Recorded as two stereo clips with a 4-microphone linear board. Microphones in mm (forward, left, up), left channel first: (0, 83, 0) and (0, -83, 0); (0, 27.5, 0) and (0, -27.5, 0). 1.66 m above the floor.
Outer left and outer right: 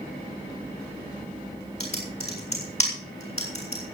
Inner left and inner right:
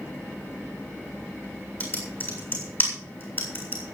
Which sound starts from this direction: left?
Typing on a keyboard, at 1.8 s.